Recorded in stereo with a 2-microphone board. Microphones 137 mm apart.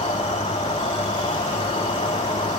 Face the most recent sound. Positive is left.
turn(degrees=40)  # may be behind; listen again after turning